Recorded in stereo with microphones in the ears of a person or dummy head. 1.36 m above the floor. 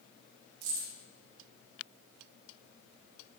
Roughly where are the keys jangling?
Right.